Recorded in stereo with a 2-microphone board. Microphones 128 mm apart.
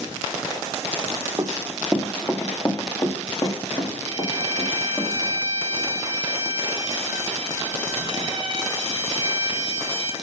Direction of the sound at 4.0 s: 40° right (ahead or behind).